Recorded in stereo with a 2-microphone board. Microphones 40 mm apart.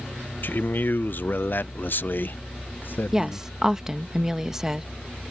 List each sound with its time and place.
0.4 s a man speaking: 50° left (ahead or behind)
3.1 s a woman speaking: 10° right (ahead or behind)